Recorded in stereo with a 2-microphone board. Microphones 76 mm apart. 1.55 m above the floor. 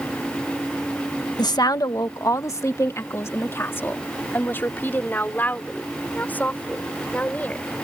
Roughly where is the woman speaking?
Left.